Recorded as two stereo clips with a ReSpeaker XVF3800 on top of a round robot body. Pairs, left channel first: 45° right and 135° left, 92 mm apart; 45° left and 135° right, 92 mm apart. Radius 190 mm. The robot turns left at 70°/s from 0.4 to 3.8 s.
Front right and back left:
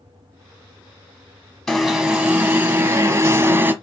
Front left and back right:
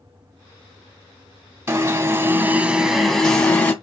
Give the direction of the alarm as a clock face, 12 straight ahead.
4 o'clock.